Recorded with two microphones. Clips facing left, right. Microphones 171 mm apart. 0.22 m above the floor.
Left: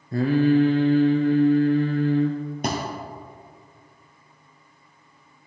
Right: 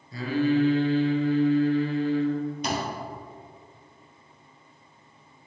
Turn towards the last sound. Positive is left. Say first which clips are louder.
# left 6 dB
turn(degrees=60)  # may be behind; listen again after turning